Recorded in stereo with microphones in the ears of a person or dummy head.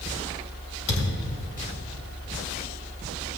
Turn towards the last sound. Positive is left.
turn(degrees=35)  # may be behind; listen again after turning